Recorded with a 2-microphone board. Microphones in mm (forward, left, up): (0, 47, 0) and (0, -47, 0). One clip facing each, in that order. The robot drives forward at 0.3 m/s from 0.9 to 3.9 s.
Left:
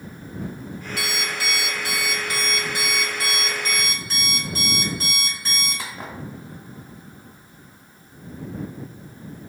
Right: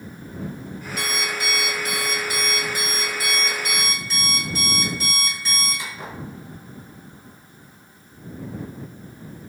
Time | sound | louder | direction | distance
1.0 | an alarm clock | right 1 dB | 75° left (ahead or behind) | 0.9 m